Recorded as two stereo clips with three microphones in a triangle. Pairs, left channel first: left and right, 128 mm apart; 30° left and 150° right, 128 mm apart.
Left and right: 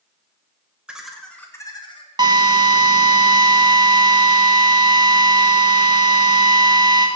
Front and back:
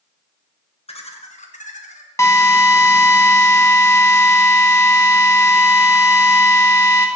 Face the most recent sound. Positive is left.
turn(degrees=-35)